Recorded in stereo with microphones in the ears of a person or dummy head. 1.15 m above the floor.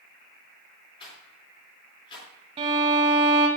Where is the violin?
30° right (ahead or behind), 2 m.